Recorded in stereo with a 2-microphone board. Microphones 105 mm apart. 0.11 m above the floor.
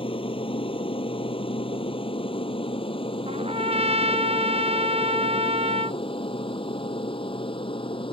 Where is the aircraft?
60° left (ahead or behind); by 8.1 s 55° left (ahead or behind).